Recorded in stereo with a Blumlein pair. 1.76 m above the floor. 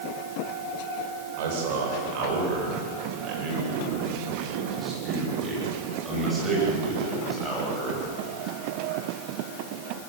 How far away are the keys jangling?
I don't hear keys jangling.